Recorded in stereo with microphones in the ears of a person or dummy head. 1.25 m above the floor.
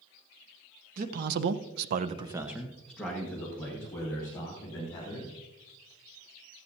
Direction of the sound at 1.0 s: 50° right (ahead or behind).